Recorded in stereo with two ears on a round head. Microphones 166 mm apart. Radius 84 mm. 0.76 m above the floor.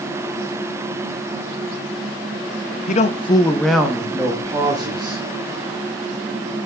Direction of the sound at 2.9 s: 40° left (ahead or behind).